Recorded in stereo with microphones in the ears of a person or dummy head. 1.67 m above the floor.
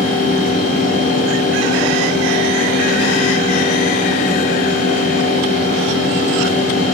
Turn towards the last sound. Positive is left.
turn(degrees=45)  # may be behind; listen again after turning